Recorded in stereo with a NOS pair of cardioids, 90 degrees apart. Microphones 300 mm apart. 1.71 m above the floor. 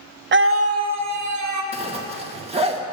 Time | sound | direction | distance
0.3 | a scream | 35° right | 0.8 m
1.7 | a zipper | 20° right | 2 m